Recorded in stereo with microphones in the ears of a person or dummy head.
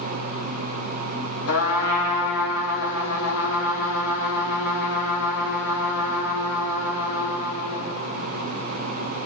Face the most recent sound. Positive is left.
turn(degrees=80)